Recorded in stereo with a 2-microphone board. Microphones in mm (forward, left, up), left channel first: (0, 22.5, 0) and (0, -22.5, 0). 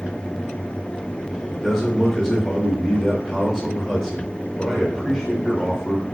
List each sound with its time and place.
1.5 s a man speaking: 10° left (ahead or behind), 1.3 m